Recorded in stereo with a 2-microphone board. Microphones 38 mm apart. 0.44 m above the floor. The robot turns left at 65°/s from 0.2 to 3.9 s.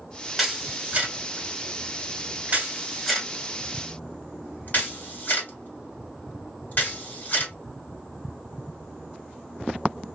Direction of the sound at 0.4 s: Centre (ahead or behind).